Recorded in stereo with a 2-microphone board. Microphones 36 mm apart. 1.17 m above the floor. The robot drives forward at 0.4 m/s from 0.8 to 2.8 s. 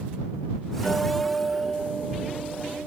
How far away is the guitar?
About 6.5 m.